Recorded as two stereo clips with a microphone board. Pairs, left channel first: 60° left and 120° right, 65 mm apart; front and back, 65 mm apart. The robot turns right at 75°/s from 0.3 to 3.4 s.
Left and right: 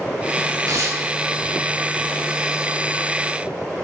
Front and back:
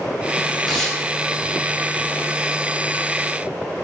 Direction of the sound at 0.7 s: 95° right.